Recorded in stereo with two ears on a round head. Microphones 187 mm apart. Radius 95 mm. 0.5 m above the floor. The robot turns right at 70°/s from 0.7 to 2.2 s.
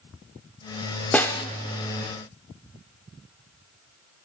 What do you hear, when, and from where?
1.1 s a snare drum: 10° left (ahead or behind), 0.8 m; by 1.4 s 20° left (ahead or behind), 0.8 m